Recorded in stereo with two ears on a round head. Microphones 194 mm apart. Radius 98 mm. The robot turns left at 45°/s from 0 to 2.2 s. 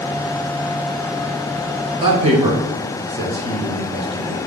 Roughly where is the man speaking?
Right.